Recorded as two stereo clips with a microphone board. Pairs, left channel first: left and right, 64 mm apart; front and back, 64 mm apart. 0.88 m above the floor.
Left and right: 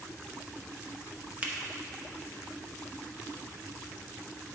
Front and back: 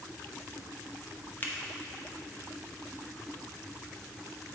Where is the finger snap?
35° right, 0.8 m.